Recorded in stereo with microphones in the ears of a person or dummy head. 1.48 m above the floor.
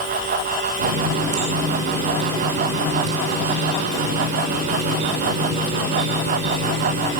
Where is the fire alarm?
No fire alarm in this recording.